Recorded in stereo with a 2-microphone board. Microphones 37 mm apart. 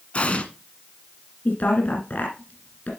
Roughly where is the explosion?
Left.